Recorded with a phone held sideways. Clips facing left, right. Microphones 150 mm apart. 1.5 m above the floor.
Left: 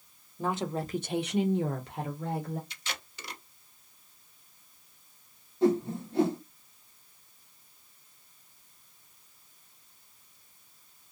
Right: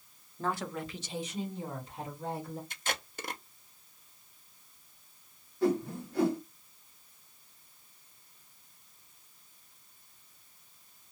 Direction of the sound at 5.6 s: 25° left (ahead or behind).